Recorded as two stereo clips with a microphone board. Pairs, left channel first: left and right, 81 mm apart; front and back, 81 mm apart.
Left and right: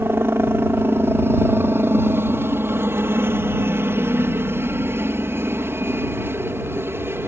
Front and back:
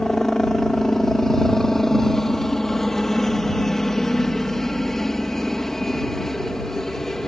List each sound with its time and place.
0.0 s a helicopter: 80° right